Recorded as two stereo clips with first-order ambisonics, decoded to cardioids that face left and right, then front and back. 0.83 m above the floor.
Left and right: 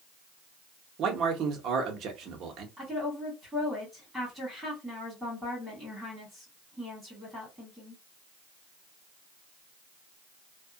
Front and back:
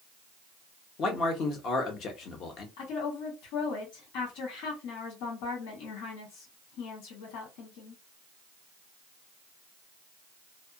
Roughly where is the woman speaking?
Ahead.